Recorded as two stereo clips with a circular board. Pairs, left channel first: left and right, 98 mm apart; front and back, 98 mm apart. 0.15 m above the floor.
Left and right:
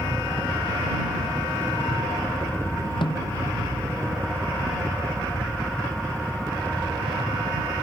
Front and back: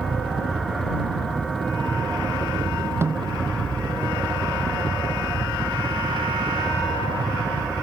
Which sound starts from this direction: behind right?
A helicopter, at 0.0 s.